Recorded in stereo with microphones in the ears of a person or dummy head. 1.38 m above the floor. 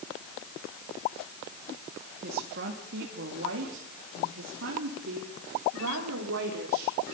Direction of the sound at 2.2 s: 55° right (ahead or behind).